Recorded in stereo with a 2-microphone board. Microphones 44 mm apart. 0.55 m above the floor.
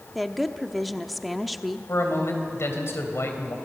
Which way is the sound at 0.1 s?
Centre (ahead or behind).